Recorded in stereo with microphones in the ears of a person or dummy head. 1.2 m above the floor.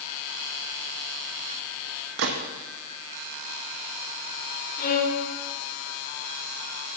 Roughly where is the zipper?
No zipper in this recording.